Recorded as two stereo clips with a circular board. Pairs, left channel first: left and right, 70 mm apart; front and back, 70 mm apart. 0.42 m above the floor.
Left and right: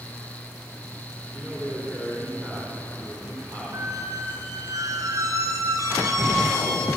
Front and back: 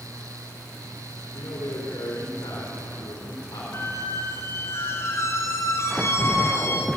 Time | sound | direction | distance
1.3 | a man speaking | 25° right | 4.5 m
3.7 | a squeak | 50° right | 3 m